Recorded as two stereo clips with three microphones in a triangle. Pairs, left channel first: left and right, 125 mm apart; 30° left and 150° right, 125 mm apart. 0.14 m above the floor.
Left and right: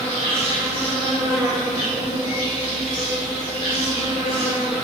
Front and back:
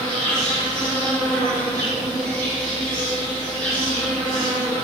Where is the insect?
115° left, 1.6 m.